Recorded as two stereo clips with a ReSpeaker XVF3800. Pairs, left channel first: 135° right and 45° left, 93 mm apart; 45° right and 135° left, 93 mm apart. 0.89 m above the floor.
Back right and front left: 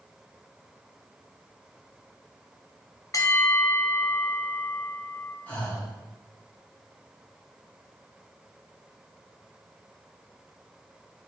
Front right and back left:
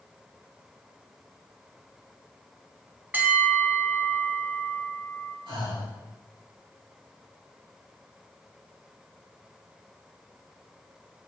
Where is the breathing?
150° left, 2 m.